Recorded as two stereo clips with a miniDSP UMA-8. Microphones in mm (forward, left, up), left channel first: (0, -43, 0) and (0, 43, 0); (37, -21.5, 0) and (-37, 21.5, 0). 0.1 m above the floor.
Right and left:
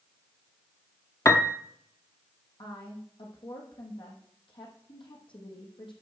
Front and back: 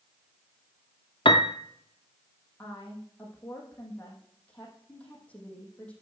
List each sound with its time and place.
1.2 s a piano: 35° right, 0.8 m
2.6 s a woman speaking: 105° right, 4 m